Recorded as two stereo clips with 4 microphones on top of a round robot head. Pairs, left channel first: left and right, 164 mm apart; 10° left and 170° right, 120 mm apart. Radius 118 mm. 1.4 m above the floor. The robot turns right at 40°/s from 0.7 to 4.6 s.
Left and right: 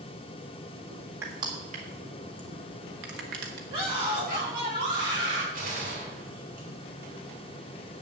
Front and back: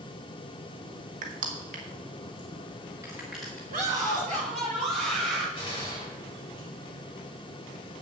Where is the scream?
155° right, 7.5 m; by 5.5 s 115° right, 7.5 m.